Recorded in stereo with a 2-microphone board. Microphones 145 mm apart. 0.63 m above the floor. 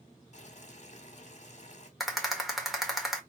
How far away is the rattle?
About 1.4 m.